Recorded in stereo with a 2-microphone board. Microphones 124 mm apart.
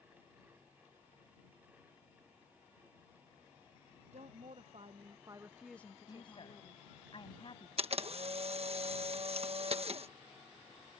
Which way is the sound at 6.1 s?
45° left (ahead or behind).